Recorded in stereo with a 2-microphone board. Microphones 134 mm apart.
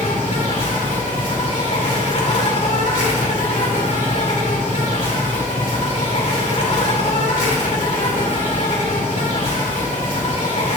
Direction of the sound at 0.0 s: 75° left (ahead or behind).